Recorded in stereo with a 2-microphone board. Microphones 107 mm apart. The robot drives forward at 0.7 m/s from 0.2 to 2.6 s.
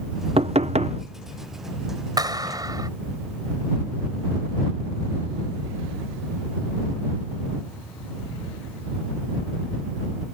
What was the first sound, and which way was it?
Knocking, 65° right (ahead or behind).